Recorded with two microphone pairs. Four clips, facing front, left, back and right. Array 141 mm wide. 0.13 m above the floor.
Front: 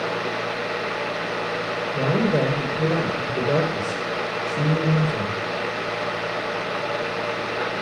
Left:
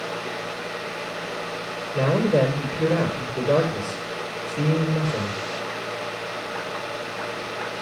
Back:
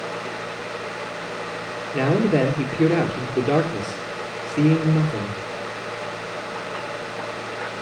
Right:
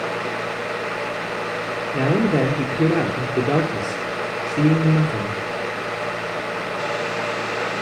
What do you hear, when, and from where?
1.9 s a man speaking: 140° right, 3 m